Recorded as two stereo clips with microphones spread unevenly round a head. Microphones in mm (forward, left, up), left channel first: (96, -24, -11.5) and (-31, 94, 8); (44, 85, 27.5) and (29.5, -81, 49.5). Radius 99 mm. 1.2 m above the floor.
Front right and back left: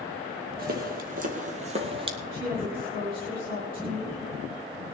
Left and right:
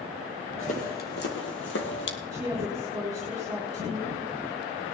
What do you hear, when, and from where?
0.6 s footsteps: 140° left, 2 m; by 2.2 s 85° left, 2 m
2.3 s a woman speaking: 170° right, 4 m